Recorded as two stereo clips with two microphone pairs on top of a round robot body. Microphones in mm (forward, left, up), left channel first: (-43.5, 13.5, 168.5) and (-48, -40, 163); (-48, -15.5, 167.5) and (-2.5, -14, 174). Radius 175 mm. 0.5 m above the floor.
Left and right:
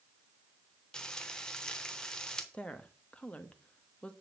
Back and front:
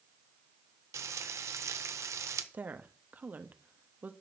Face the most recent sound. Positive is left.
turn(degrees=30)